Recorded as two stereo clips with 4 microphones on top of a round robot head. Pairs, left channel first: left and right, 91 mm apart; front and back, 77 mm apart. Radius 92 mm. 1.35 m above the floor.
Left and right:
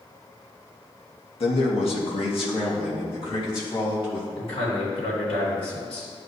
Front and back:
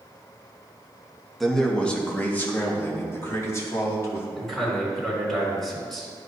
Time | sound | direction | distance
1.4 | a man speaking | 85° left | 1.4 m
4.3 | a man speaking | 85° left | 3 m